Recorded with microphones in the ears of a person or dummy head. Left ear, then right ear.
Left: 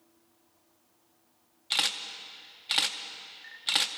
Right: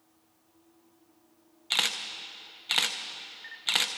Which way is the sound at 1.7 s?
Centre (ahead or behind).